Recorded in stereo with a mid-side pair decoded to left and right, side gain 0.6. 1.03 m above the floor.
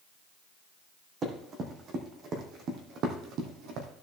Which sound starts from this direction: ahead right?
Running footsteps, at 1.2 s.